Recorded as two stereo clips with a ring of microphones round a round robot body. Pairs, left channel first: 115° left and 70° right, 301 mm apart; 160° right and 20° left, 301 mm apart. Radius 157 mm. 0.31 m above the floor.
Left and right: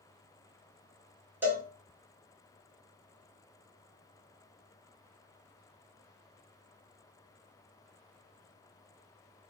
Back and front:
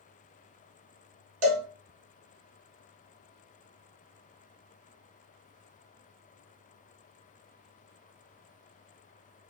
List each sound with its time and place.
1.4 s a cowbell: 15° left, 0.8 m